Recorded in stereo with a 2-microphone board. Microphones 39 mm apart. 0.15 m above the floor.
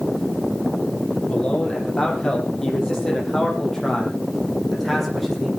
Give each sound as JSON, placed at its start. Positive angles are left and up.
{"t": 1.3, "sound": "a man speaking", "side_deg": 25, "distance_m": 6.0}